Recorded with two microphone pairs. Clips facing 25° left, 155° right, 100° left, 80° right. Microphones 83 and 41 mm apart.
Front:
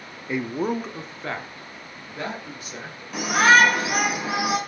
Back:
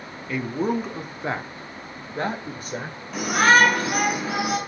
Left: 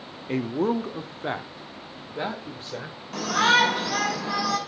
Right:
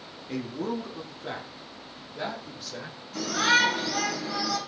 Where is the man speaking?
85° left, 0.7 m; by 3.0 s 160° left, 1.9 m.